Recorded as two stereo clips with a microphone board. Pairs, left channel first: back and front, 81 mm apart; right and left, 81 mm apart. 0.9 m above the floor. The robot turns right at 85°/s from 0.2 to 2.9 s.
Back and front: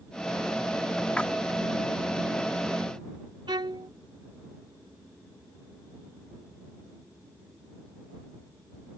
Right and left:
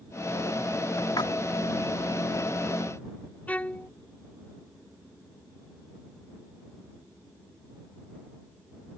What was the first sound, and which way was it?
A splash, 110° right.